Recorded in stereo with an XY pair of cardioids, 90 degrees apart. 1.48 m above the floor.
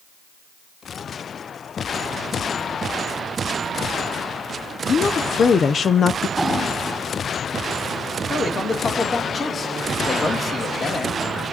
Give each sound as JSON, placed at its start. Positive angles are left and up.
{"t": 4.9, "sound": "a woman speaking", "azimuth_deg": 50, "distance_m": 0.6}
{"t": 6.4, "sound": "an explosion", "azimuth_deg": 0, "distance_m": 9.5}
{"t": 8.3, "sound": "a man speaking", "azimuth_deg": 35, "distance_m": 3.0}